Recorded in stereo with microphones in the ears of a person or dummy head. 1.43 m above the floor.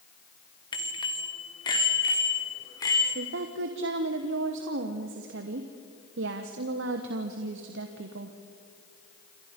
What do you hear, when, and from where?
0.7 s a bicycle bell: 30° left (ahead or behind), 2 m; by 3.0 s 25° left (ahead or behind), 3 m
3.1 s a woman speaking: 60° right (ahead or behind), 1.2 m